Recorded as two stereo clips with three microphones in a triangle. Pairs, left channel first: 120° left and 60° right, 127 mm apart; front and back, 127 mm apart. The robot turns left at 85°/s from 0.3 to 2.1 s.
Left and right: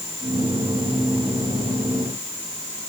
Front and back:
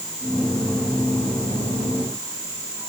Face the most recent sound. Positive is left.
No sound to turn to.